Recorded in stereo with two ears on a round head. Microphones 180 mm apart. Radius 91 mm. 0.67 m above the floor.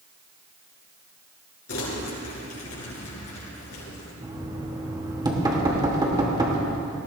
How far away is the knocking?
About 2 m.